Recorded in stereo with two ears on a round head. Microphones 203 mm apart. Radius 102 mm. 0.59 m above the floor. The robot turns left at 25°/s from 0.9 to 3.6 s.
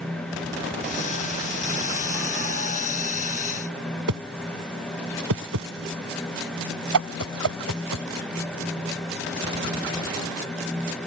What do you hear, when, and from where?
4.1 s a whoosh: 75° right (ahead or behind)